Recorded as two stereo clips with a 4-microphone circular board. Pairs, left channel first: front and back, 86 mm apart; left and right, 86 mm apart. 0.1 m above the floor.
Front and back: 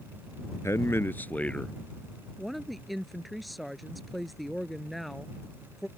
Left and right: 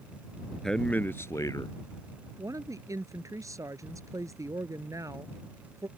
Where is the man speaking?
10° left; by 1.8 s 80° left.